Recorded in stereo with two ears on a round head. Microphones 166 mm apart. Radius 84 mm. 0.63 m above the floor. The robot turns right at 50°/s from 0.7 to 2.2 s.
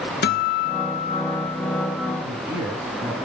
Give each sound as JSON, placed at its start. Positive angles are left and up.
{"t": 0.2, "sound": "a guitar", "azimuth_deg": 120, "distance_m": 1.9}
{"t": 2.2, "sound": "a man speaking", "side_deg": -15, "distance_m": 6.5}